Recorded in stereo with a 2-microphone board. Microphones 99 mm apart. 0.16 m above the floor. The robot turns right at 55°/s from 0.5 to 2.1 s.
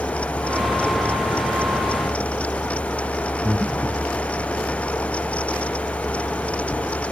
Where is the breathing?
15° right (ahead or behind).